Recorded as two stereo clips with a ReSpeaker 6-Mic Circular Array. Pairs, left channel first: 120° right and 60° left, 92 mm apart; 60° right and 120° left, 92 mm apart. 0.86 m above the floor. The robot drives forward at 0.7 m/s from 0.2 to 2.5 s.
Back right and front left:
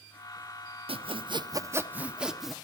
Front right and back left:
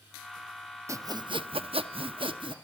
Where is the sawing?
65° left, 0.6 m; by 2.5 s 150° left, 1.0 m.